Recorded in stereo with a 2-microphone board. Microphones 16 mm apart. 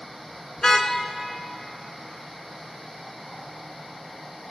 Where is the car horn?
40° left (ahead or behind), 2.5 m.